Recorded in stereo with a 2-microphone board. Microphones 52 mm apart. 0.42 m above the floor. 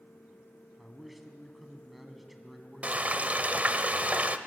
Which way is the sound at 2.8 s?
30° right (ahead or behind).